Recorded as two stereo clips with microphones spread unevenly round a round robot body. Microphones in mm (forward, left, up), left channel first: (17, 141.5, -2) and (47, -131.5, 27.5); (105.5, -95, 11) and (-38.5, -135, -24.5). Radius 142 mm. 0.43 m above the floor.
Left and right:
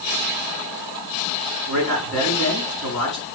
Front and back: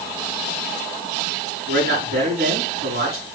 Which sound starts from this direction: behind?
A man speaking, at 1.7 s.